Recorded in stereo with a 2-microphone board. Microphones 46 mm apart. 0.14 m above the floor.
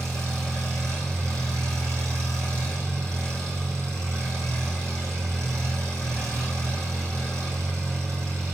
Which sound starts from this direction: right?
An engine running, at 0.0 s.